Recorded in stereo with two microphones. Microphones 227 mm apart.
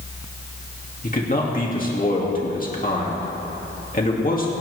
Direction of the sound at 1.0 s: 35° left (ahead or behind).